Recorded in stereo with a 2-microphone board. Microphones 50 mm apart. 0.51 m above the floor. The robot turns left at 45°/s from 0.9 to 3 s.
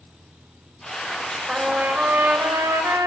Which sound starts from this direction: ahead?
A trumpet, at 1.5 s.